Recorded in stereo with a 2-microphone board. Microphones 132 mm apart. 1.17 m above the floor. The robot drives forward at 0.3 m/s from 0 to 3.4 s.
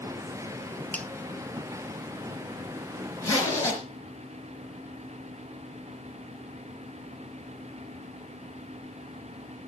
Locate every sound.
0.9 s a finger snap: 10° left (ahead or behind), 0.6 m
3.2 s a zipper: 20° left (ahead or behind), 4 m